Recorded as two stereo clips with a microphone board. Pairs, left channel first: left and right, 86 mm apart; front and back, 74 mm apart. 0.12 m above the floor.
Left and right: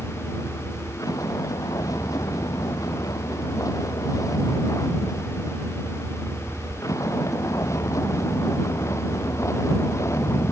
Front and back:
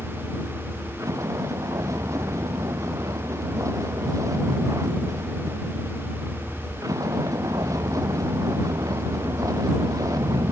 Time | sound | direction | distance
0.0 | a vehicle | 135° left | ?